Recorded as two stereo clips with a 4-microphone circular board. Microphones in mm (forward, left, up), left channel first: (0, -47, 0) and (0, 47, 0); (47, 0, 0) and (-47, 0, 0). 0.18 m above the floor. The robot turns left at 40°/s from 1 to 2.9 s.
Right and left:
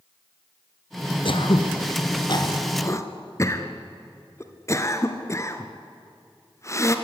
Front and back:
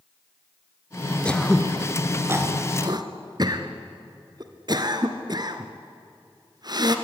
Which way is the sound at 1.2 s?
75° right.